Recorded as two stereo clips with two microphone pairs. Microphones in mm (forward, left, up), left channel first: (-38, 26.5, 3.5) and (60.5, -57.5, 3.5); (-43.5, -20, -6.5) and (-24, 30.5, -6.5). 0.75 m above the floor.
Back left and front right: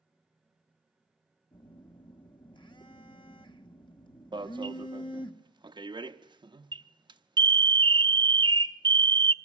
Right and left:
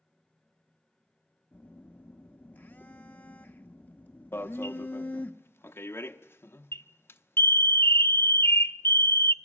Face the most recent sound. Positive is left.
turn(degrees=-85)